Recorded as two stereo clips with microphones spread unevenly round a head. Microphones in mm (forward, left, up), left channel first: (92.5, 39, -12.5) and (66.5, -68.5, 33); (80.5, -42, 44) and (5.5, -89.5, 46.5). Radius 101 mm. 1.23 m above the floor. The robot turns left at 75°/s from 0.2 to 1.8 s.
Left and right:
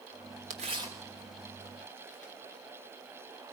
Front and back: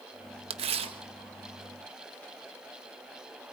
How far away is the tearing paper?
About 1.1 m.